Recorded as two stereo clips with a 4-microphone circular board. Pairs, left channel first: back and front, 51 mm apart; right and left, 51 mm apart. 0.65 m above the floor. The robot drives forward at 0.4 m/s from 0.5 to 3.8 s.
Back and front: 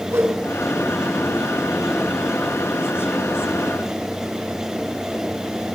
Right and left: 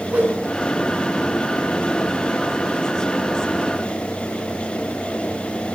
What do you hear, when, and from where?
0.1 s a whoosh: 30° left, 7 m